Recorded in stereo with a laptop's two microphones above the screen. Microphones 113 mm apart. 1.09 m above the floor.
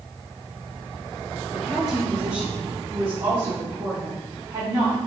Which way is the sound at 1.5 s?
30° right (ahead or behind).